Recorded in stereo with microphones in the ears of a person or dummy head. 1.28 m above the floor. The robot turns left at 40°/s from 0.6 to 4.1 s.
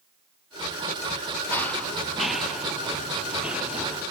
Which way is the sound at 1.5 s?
10° left (ahead or behind).